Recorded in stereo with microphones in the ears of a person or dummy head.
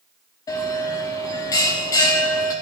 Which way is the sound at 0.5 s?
20° left (ahead or behind).